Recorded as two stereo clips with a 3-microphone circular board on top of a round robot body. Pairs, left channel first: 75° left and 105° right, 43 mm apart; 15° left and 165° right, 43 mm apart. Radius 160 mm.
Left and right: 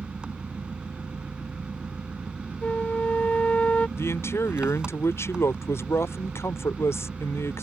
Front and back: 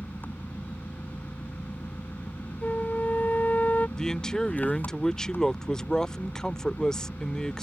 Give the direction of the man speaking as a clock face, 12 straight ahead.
9 o'clock.